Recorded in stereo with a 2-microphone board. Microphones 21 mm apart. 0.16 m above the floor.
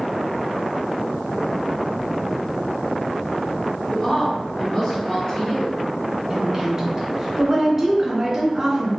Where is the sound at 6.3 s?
25° right (ahead or behind), 1.3 m.